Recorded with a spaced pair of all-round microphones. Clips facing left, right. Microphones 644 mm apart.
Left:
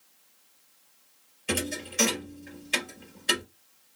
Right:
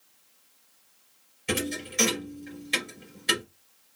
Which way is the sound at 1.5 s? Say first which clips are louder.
Right 1 dB; 50° right (ahead or behind).